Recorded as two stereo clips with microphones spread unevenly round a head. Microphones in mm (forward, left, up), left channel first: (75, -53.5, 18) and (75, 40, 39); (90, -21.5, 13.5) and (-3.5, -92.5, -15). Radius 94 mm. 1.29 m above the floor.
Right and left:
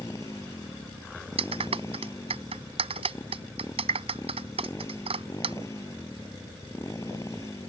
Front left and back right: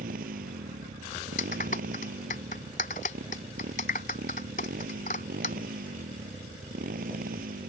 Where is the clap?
80° left.